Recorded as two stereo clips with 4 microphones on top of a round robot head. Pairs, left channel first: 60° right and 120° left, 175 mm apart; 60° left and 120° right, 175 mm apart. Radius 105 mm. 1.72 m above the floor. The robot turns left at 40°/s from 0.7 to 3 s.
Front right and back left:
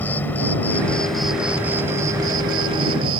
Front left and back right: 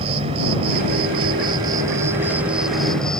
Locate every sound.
0.0 s an insect: 130° right; by 3.2 s 140° left